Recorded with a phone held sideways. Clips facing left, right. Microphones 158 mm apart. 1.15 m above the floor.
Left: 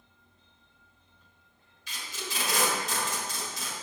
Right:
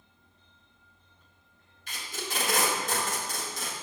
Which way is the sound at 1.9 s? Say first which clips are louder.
Right 2 dB; 50° right (ahead or behind).